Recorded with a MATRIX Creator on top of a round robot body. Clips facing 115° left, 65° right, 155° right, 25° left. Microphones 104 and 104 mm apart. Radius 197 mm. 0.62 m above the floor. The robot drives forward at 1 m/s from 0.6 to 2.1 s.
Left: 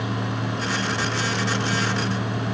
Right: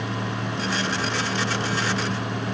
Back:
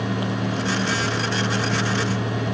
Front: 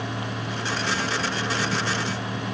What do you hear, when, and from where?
Only background noise.